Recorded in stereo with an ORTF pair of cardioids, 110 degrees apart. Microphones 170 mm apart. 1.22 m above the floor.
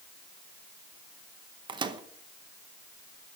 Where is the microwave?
25° right, 0.8 m.